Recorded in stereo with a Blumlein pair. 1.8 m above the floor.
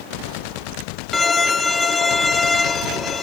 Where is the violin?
15° left, 0.5 m.